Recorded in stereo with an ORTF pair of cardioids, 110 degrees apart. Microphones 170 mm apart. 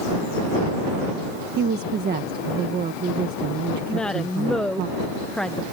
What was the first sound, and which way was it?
A woman speaking, 70° right.